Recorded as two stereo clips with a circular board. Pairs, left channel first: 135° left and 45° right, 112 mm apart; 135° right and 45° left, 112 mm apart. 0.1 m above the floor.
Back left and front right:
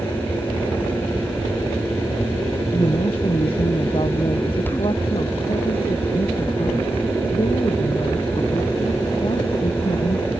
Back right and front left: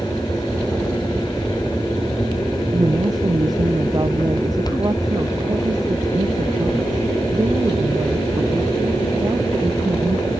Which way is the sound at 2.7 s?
100° left.